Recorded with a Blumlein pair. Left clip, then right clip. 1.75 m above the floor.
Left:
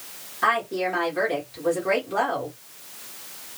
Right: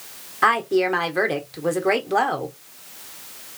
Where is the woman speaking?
20° right, 1.4 m.